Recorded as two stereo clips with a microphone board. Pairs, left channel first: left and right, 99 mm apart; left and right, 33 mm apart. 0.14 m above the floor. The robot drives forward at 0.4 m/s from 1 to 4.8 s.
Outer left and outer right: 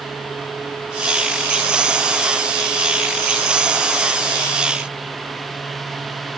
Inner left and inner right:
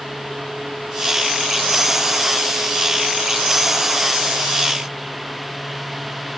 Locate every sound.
Only background noise.